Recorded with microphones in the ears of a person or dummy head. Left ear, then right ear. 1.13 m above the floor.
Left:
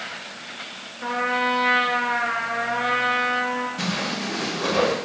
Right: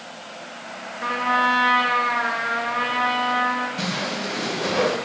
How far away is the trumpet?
About 1.3 m.